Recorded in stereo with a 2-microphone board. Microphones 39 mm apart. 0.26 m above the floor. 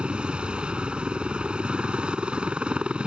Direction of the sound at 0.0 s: 25° right (ahead or behind).